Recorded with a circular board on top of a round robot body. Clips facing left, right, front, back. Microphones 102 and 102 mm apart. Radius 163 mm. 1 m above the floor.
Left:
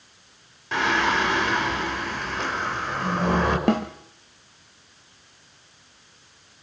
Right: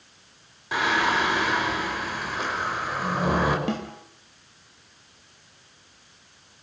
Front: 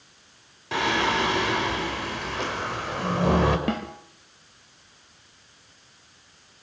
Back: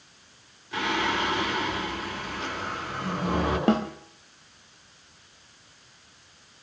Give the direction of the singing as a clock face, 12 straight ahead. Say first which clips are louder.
Left 1 dB, front 3 dB; 12 o'clock.